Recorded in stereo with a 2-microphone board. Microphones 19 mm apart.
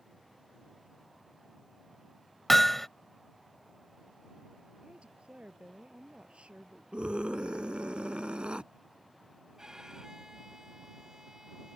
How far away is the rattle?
No rattle in this recording.